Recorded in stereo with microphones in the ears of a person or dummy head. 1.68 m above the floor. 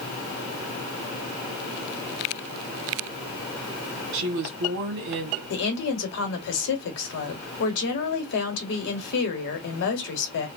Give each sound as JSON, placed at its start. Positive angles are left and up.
{"t": 4.1, "sound": "a woman speaking", "side_deg": -50, "distance_m": 1.2}
{"t": 5.5, "sound": "a woman speaking", "side_deg": 60, "distance_m": 1.0}